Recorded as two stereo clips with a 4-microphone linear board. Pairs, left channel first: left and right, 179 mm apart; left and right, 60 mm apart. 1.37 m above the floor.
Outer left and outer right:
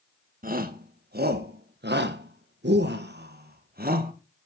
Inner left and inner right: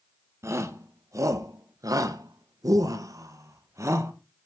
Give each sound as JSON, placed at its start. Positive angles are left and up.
{"t": 0.4, "sound": "a shout", "side_deg": -50, "distance_m": 1.9}